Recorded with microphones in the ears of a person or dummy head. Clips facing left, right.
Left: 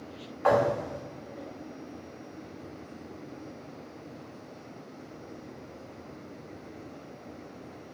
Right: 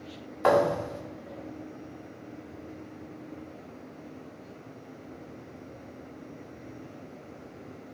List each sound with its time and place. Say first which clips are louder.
0.4 s a thud: right 1 dB; 65° right (ahead or behind), 1.5 m